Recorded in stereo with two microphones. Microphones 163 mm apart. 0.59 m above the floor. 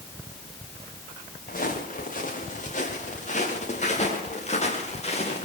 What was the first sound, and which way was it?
Footsteps, 55° left (ahead or behind).